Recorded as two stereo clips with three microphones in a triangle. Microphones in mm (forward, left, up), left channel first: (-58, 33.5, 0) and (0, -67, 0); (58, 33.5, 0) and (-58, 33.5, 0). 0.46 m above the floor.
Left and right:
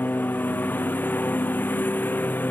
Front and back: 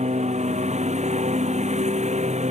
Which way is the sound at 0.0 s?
165° right.